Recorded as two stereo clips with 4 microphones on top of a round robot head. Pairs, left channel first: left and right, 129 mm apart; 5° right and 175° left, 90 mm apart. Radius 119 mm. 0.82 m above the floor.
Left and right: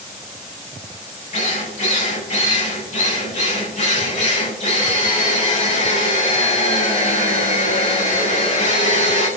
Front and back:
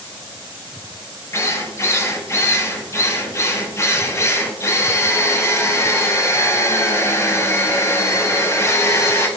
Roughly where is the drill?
Ahead left.